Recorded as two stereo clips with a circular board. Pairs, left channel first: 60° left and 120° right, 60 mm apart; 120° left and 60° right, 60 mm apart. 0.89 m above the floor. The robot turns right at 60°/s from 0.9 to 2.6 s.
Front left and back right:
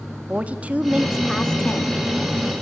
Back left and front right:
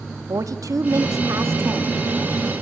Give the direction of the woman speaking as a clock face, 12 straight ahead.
2 o'clock.